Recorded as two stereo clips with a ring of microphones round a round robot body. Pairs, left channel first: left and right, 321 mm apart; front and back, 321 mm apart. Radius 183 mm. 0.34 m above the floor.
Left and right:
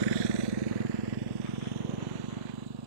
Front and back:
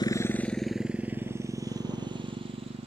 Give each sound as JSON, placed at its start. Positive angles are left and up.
{"t": 0.0, "sound": "a motorcycle", "azimuth_deg": -80}